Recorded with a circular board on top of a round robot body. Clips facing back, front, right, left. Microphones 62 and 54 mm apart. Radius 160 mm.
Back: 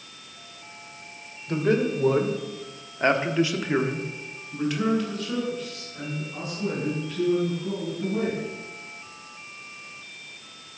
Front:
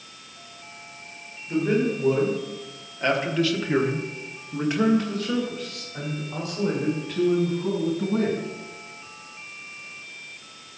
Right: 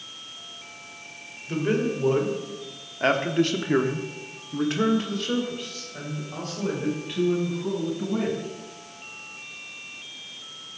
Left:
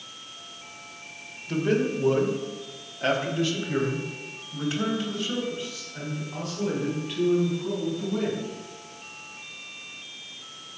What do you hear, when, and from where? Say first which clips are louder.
1.5 s a man speaking: even, even; 170° right, 2.5 m; by 8.5 s 30° right, 5.5 m